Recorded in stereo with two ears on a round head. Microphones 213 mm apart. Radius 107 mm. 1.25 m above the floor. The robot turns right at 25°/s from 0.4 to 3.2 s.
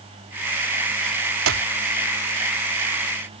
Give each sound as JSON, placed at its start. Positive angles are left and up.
{"t": 1.5, "sound": "a clap", "side_deg": -60}